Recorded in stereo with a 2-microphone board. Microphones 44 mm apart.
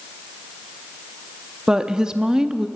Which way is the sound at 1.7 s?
15° right (ahead or behind).